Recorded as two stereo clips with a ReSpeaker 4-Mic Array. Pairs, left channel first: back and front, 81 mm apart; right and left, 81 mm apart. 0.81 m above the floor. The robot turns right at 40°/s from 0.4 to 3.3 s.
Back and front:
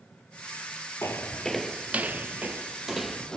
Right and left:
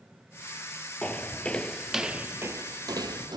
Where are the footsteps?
150° right, 0.9 m; by 3.4 s 100° left, 1.5 m.